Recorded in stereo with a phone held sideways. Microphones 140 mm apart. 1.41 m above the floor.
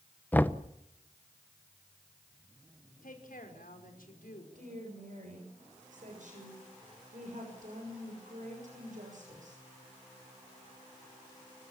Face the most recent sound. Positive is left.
turn(degrees=-65)  # may be behind; listen again after turning